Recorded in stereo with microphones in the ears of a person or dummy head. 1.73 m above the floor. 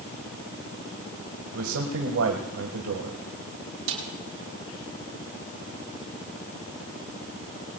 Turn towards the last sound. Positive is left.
turn(degrees=-75)  # may be behind; listen again after turning